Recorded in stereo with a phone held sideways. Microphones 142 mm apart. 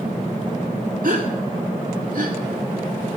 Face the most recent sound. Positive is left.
turn(degrees=-70)  # may be behind; listen again after turning